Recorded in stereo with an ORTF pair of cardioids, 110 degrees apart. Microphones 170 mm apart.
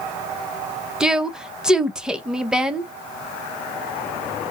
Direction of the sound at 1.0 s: 5° right.